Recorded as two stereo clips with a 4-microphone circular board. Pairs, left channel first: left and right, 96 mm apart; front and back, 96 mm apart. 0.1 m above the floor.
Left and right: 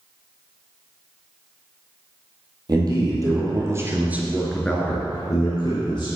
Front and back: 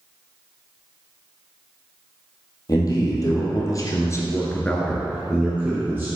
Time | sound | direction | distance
2.7 | a man speaking | 45° right | 2.5 m